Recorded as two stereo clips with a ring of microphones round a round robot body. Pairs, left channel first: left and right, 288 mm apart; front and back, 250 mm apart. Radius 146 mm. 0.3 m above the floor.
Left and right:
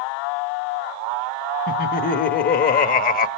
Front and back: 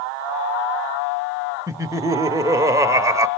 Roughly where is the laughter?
Behind left.